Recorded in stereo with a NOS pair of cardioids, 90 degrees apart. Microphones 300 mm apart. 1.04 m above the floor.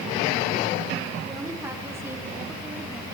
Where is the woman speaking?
10° right, 4.5 m; by 3.0 s 5° right, 3 m.